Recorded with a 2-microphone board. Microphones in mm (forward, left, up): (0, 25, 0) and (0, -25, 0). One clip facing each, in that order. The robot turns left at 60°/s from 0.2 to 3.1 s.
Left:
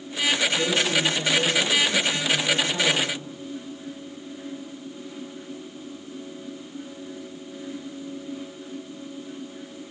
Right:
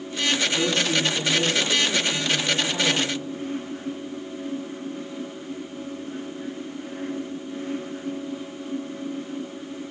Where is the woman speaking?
55° right, 1.4 m; by 3.1 s 145° left, 1.4 m.